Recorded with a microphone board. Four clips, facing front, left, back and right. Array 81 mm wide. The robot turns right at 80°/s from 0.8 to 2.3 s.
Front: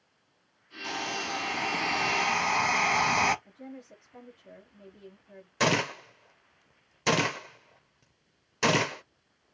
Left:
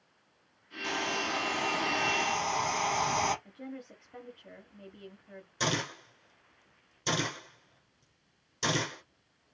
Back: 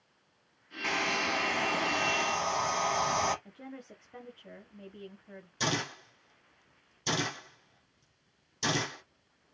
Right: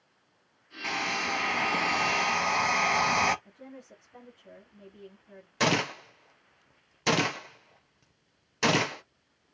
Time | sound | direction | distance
0.8 | a hair dryer | 155° right | 1.1 m
3.5 | a woman speaking | 150° left | 1.6 m
5.6 | a gunshot | 40° right | 0.7 m